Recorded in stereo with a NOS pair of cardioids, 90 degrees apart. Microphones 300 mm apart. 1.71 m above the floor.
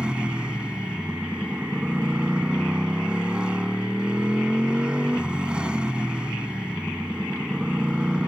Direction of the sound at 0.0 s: 5° right.